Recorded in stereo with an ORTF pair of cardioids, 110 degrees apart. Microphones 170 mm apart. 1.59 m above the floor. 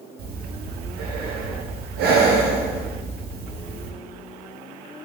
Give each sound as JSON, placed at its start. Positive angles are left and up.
{"t": 0.2, "sound": "breathing", "azimuth_deg": -60, "distance_m": 0.6}